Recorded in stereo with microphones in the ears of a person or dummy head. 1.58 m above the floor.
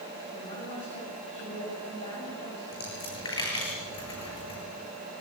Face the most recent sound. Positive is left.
turn(degrees=25)  # may be behind; listen again after turning